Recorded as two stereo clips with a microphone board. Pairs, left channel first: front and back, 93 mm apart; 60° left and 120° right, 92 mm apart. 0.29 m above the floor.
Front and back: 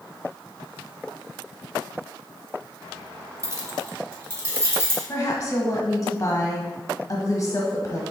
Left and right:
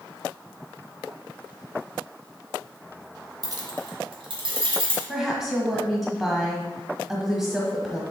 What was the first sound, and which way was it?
Keys jangling, 140° right.